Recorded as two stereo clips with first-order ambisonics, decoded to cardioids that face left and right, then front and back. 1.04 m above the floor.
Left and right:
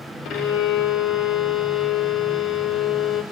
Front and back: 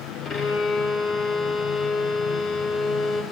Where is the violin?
55° left, 0.8 m.